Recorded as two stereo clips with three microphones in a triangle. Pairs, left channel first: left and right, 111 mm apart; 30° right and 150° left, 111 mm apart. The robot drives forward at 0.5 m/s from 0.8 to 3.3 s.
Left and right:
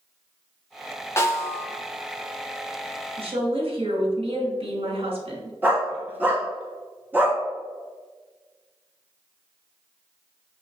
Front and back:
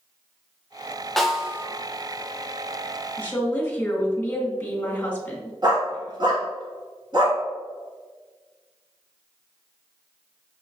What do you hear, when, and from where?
1.2 s a snare drum: 55° left, 0.7 m; by 1.7 s 105° left, 0.7 m
3.2 s a woman speaking: 100° right, 1.6 m; by 5.5 s 105° right, 1.6 m
5.6 s a dog barking: 160° right, 1.2 m